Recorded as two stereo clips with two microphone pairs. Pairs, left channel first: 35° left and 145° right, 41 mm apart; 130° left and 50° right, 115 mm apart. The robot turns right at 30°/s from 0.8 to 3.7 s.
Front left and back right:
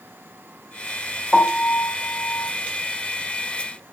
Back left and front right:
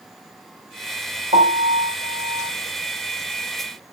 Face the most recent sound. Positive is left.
turn(degrees=15)